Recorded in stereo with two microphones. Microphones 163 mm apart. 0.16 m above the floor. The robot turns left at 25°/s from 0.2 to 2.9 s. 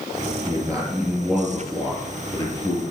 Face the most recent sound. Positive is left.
turn(degrees=145)